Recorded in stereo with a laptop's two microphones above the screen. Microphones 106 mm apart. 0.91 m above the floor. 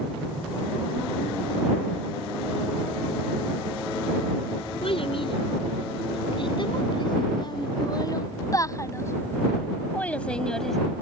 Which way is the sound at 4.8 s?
60° left (ahead or behind).